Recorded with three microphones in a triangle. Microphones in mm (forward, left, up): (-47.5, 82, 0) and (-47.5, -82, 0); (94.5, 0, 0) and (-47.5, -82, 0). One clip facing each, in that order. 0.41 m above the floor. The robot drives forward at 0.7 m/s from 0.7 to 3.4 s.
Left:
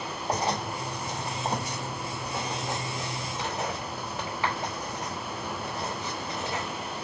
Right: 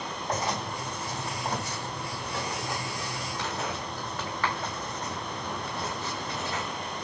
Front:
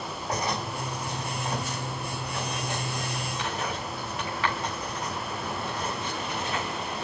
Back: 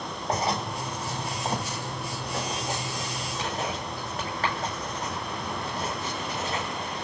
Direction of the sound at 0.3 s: 150° left.